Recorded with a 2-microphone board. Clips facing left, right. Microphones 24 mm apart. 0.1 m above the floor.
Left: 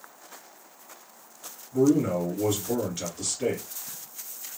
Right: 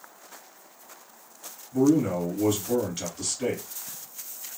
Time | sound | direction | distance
1.7 | a man speaking | 10° right (ahead or behind) | 1.7 m